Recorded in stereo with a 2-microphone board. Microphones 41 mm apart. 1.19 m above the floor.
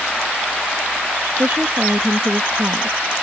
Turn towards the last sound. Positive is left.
turn(degrees=-35)  # may be behind; listen again after turning